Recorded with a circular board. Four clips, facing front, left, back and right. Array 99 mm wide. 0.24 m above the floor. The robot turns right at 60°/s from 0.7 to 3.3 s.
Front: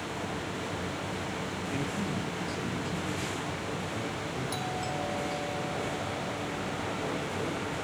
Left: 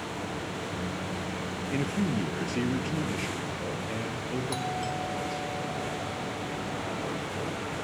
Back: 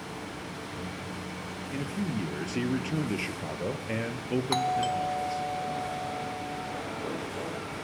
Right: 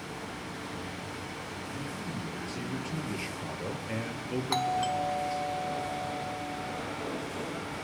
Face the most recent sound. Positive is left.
turn(degrees=-150)